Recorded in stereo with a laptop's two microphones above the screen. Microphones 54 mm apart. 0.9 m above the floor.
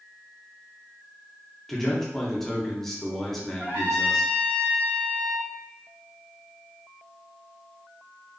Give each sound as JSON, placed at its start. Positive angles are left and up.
{"t": 1.7, "sound": "a man speaking", "side_deg": 5, "distance_m": 0.5}
{"t": 3.6, "sound": "a trumpet", "side_deg": -50, "distance_m": 1.0}